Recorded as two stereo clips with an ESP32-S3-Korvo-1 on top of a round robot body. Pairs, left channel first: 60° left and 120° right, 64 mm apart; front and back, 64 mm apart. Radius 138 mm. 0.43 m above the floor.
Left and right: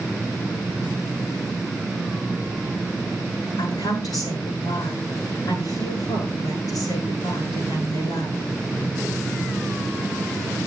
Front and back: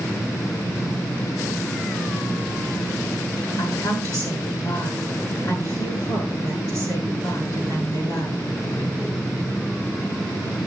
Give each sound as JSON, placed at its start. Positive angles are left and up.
{"t": 3.6, "sound": "a woman speaking", "azimuth_deg": 35, "distance_m": 7.5}